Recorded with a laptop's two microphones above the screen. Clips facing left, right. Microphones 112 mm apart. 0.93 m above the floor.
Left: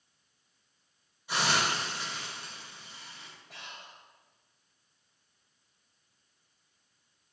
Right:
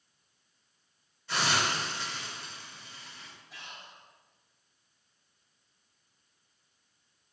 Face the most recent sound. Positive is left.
turn(degrees=75)  # may be behind; listen again after turning